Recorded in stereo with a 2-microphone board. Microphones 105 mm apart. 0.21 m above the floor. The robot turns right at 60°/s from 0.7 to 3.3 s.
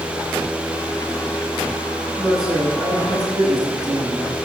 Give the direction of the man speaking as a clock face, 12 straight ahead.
6 o'clock.